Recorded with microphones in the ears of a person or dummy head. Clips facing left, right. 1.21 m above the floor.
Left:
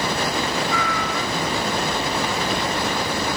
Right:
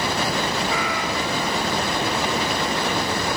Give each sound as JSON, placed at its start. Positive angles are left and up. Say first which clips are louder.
{"t": 0.7, "sound": "a cat meowing", "louder": "even", "side_deg": -15, "distance_m": 0.7}